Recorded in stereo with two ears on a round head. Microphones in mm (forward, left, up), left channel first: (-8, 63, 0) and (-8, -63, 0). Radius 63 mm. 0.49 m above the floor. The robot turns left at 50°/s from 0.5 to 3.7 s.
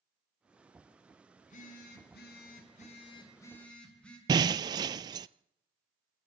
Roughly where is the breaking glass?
Right.